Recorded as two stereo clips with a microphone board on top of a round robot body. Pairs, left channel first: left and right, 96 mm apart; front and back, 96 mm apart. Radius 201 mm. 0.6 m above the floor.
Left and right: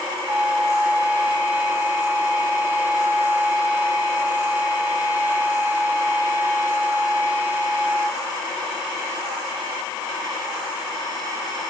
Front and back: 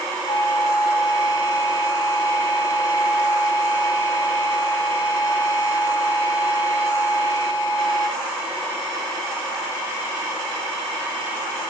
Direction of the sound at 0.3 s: 25° right.